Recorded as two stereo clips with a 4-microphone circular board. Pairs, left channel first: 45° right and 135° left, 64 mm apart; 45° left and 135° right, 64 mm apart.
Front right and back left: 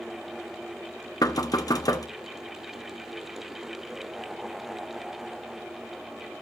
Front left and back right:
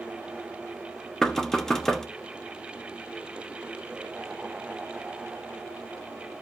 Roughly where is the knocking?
Ahead right.